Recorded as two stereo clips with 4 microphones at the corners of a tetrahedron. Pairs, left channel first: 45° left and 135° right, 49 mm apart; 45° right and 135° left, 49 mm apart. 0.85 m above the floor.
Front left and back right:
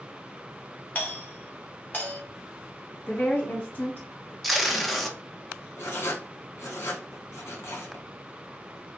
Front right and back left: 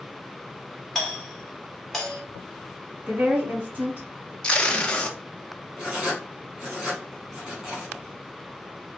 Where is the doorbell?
35° left, 1.4 m.